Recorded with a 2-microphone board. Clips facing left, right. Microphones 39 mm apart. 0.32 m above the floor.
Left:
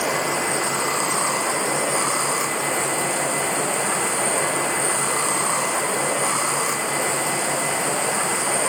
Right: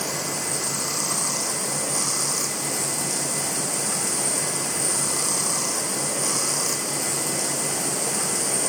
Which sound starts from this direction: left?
Running water, at 0.0 s.